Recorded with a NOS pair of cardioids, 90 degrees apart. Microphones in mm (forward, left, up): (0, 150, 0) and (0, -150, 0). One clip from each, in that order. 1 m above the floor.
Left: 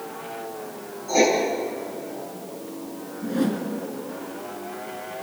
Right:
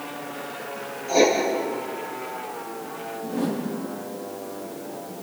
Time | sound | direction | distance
1.1 | writing | 20° left | 9 m
3.2 | a whoosh | 65° left | 4.5 m